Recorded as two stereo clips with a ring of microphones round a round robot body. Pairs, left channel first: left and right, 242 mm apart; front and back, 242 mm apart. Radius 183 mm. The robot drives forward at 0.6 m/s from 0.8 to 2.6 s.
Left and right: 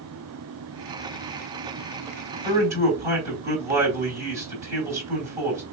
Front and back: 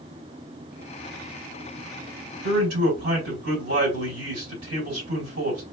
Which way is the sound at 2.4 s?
150° right.